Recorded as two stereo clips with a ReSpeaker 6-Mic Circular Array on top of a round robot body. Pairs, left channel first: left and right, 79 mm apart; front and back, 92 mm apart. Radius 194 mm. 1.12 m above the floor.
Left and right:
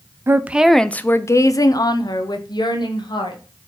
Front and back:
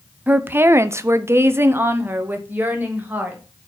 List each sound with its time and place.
0.3 s a woman speaking: 115° right, 0.6 m; by 3.4 s 110° left, 1.5 m